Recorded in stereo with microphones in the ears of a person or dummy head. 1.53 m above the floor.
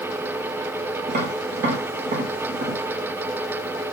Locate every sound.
1.1 s tapping: 45° right (ahead or behind), 0.7 m